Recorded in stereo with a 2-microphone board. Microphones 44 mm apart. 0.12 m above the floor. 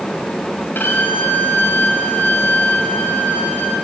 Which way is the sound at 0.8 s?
55° left (ahead or behind).